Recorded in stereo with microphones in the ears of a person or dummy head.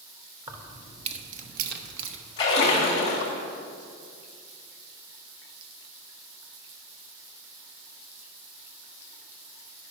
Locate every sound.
0.5 s keys jangling: 5° right (ahead or behind), 0.9 m; by 2.2 s 65° right (ahead or behind), 1.1 m
2.4 s a splash: 15° left (ahead or behind), 1.7 m